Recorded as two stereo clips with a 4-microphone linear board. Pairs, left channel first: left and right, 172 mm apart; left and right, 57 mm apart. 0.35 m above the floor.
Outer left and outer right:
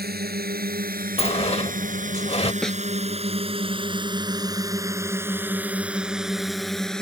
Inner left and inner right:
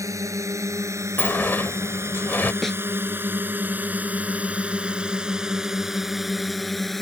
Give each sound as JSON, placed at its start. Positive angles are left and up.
{"t": 0.0, "sound": "a drone", "side_deg": -65}
{"t": 1.2, "sound": "a sliding door", "side_deg": 35}
{"t": 2.6, "sound": "a snare drum", "side_deg": 5}